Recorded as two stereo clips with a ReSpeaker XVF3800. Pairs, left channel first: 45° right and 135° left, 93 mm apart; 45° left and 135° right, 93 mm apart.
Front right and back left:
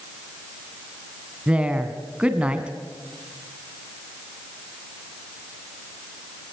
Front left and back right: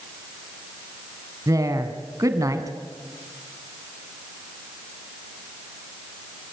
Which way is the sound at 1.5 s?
155° right.